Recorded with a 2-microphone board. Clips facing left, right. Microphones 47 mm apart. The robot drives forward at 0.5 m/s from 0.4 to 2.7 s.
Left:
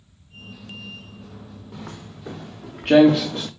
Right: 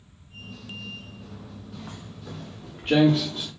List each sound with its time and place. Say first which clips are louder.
1.7 s footsteps: left 5 dB; 80° left, 2.5 m; by 3.5 s 65° left (ahead or behind), 0.8 m